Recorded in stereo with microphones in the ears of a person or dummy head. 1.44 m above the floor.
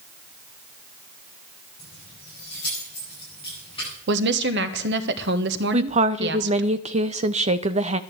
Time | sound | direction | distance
1.8 | keys jangling | 25° left (ahead or behind) | 9 m
4.1 | a woman speaking | 75° right (ahead or behind) | 1.3 m
5.7 | a woman speaking | 35° right (ahead or behind) | 0.7 m